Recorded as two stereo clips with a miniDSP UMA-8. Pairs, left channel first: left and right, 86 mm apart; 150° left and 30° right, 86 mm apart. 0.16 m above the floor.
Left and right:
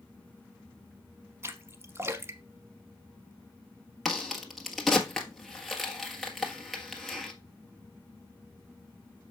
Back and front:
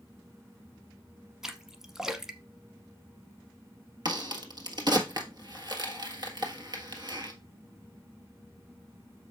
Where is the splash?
110° right, 0.8 m.